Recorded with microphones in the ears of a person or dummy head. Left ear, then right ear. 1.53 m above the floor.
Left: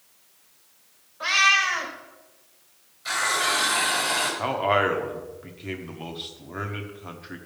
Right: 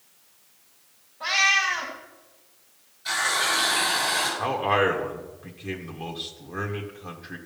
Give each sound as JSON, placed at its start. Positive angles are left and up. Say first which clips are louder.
{"t": 1.2, "sound": "a cat meowing", "louder": "left 2 dB", "side_deg": 50, "distance_m": 2.0}
{"t": 3.0, "sound": "a running tap", "louder": "even", "side_deg": 20, "distance_m": 5.0}
{"t": 4.4, "sound": "a man speaking", "louder": "left 1 dB", "side_deg": 10, "distance_m": 1.3}